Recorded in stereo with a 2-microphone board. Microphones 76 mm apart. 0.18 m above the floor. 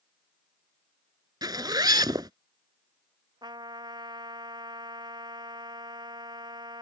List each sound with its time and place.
1.4 s a zipper: 65° right (ahead or behind)
3.4 s a trumpet: 75° right (ahead or behind)